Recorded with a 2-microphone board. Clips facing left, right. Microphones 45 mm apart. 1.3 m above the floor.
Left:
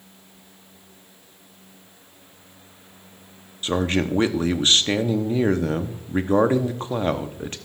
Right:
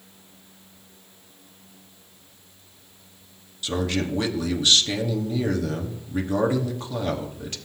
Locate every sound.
3.6 s a man speaking: 35° left (ahead or behind), 0.8 m